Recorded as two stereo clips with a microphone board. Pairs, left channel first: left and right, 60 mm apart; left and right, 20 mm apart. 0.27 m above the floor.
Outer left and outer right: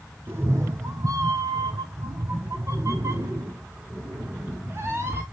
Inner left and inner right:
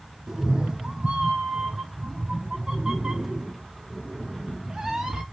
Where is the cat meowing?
40° right (ahead or behind), 1.2 m.